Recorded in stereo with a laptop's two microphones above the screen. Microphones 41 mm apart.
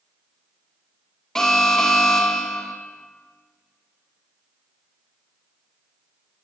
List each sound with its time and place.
1.4 s an alarm: 10° left (ahead or behind), 0.7 m